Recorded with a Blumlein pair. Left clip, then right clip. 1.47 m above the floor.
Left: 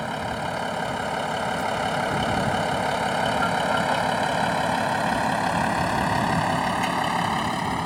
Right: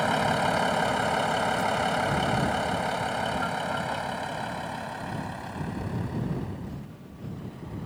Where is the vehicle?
15° right; by 7.9 s 50° left.